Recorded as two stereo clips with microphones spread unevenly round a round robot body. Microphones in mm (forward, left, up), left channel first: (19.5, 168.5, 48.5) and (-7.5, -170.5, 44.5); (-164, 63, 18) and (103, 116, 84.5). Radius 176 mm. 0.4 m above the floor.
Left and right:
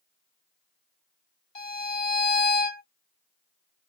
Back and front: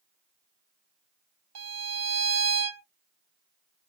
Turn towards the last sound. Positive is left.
turn(degrees=30)